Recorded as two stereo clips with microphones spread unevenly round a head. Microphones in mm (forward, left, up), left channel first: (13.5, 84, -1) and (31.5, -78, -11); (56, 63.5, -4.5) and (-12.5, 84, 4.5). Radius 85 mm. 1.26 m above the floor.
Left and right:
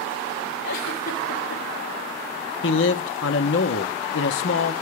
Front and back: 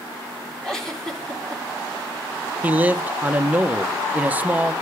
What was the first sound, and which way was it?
A giggle, 65° left.